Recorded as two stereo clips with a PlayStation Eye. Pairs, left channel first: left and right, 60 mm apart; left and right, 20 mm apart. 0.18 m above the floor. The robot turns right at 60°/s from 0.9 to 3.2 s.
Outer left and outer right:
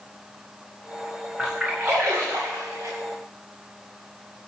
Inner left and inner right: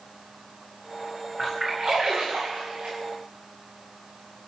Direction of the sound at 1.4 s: Centre (ahead or behind).